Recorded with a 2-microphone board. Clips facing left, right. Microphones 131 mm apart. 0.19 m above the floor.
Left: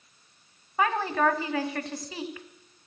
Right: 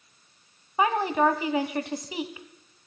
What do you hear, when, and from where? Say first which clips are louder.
0.8 s a woman speaking: right 2 dB; 20° right (ahead or behind), 1.0 m